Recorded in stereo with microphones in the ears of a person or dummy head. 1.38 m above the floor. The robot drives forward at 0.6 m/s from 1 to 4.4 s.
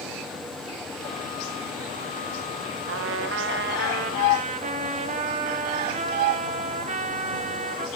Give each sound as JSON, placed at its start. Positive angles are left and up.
{"t": 2.9, "sound": "a trumpet", "side_deg": -55, "distance_m": 0.7}